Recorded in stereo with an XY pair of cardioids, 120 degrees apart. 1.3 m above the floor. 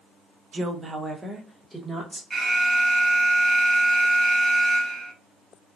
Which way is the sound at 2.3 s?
10° right.